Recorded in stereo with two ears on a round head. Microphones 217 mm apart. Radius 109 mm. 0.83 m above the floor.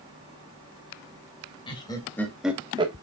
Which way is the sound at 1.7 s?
20° left (ahead or behind).